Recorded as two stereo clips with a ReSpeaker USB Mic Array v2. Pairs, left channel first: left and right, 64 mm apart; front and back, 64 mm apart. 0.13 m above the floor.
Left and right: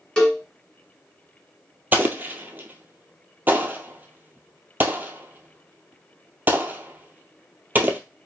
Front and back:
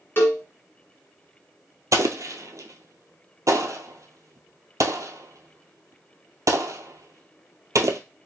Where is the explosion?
150° right, 0.6 m.